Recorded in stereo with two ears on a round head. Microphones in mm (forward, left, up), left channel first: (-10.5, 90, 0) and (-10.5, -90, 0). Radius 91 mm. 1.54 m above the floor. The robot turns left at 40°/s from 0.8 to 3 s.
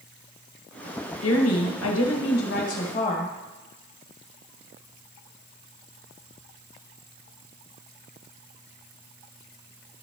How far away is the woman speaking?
About 1.3 m.